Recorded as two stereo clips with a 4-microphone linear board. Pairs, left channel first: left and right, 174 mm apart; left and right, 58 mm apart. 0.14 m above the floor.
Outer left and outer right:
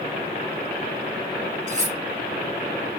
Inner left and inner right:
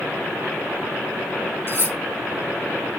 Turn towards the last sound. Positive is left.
turn(degrees=-45)  # may be behind; listen again after turning